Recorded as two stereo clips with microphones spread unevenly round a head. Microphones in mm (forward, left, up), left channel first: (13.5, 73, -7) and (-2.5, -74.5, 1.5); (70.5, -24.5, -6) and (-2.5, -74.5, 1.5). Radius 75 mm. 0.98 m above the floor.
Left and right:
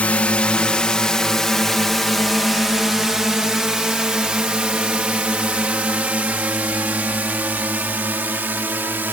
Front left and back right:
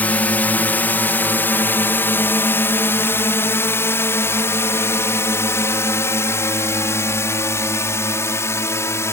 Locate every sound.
0.0 s a drone: 25° left; by 9.1 s 20° right